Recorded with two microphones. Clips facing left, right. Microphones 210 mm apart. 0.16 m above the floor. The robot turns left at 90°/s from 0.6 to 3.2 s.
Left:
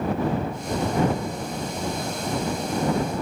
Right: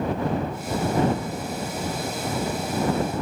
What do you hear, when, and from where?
Only background noise.